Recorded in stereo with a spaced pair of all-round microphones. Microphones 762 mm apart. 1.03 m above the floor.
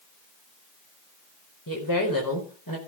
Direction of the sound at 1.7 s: 25° left (ahead or behind).